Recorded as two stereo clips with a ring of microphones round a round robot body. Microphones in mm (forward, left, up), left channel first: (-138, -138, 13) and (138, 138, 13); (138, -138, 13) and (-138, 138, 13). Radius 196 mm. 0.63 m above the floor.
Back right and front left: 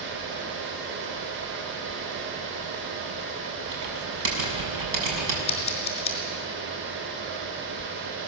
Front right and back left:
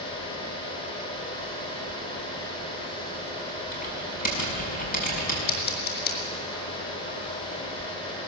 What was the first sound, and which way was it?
Typing on a keyboard, 25° left.